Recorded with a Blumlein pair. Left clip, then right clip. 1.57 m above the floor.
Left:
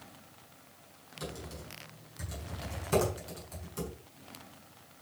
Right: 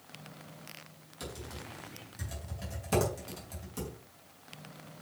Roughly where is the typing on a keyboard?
Ahead right.